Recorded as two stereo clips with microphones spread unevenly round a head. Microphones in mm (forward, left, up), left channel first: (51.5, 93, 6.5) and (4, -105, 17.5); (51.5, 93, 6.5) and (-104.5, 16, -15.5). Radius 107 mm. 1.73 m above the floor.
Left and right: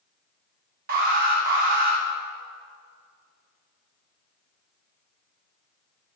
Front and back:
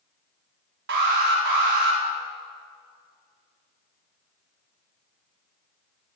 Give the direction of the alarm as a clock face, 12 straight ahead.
5 o'clock.